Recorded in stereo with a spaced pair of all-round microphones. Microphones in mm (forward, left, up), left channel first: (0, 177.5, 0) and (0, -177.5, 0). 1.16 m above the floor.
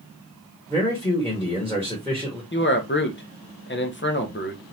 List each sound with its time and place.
0.7 s a man speaking: 5° left (ahead or behind), 1.5 m
2.5 s a man speaking: 30° left (ahead or behind), 0.8 m